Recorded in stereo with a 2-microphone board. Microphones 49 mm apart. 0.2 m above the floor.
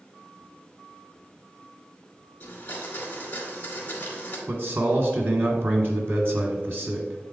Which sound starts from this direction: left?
A blender, at 2.4 s.